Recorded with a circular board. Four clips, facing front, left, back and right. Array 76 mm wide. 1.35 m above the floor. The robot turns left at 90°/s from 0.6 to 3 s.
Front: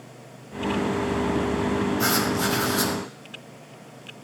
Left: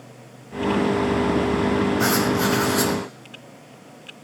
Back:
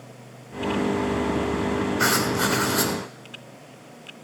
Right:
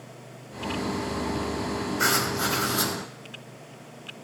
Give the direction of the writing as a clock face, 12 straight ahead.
5 o'clock.